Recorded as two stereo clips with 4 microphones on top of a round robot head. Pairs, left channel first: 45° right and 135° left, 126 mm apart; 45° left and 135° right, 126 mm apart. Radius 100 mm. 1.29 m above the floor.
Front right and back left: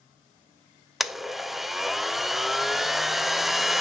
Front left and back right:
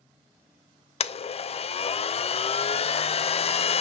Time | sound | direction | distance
1.0 | a blender | 50° left | 0.7 m